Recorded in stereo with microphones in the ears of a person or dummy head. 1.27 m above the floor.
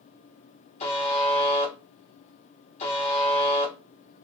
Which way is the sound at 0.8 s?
30° left (ahead or behind).